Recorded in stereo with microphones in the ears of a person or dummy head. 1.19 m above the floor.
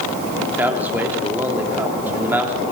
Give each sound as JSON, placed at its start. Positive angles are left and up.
{"t": 0.5, "sound": "a man speaking", "side_deg": -5, "distance_m": 3.5}